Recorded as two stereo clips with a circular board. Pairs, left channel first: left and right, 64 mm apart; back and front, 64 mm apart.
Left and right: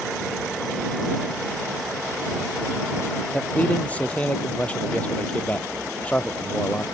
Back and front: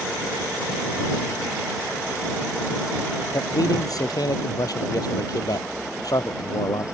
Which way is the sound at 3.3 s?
160° left.